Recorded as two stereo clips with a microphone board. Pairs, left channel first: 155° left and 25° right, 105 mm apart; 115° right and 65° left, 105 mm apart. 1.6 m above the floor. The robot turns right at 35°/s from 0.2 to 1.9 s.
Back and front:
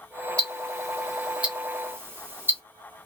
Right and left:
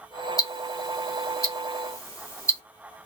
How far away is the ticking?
About 1.1 m.